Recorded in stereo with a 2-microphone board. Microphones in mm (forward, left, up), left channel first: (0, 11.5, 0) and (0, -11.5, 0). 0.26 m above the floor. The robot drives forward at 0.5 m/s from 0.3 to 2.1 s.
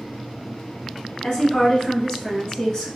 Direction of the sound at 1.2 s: 35° left (ahead or behind).